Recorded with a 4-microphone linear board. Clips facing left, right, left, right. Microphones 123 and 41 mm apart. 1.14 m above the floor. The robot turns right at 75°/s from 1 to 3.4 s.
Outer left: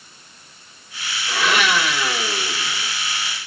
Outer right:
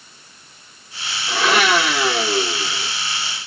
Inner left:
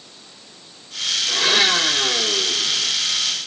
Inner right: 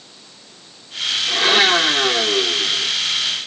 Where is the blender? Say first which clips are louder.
Outer right 3 dB, inner right 3 dB; 160° right, 2.5 m; by 2.9 s 35° right, 2.5 m.